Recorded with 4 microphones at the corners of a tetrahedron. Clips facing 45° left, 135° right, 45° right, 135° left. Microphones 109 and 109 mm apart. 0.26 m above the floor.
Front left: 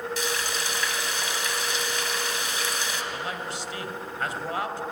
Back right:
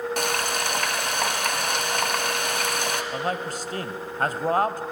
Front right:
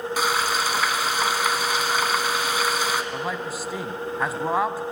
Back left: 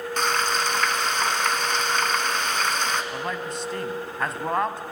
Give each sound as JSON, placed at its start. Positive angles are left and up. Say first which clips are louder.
{"t": 0.2, "sound": "frying", "louder": "back right 4 dB, even", "azimuth_deg": -125, "distance_m": 1.5}
{"t": 3.1, "sound": "a man speaking", "louder": "back right 5 dB, front right 1 dB", "azimuth_deg": -125, "distance_m": 1.2}